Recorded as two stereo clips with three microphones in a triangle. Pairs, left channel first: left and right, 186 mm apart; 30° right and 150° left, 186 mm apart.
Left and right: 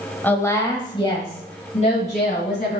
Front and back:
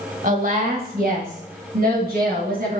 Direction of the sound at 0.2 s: 165° left.